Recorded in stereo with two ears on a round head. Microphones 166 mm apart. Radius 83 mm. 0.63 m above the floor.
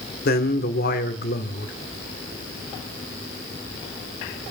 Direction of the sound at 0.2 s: 55° left (ahead or behind).